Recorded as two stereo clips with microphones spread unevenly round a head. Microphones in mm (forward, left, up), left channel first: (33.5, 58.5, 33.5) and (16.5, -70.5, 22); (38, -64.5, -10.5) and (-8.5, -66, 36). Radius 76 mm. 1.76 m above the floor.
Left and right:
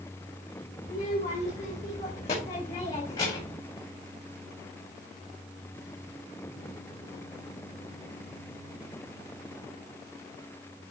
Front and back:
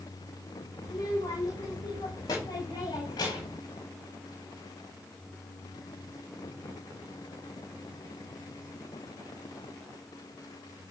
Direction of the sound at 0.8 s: 55° left.